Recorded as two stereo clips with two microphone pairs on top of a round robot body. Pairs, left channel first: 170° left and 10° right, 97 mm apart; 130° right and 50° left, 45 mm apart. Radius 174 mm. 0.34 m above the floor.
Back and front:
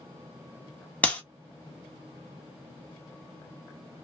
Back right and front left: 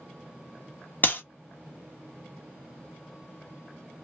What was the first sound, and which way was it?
A clap, 125° right.